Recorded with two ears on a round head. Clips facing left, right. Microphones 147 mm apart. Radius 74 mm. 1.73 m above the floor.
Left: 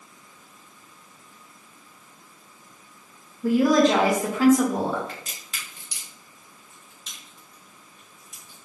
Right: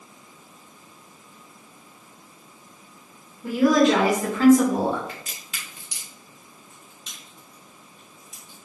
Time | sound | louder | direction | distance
3.4 | a woman speaking | even | 45° left (ahead or behind) | 0.8 m
5.1 | a crack | even | 40° left (ahead or behind) | 2.0 m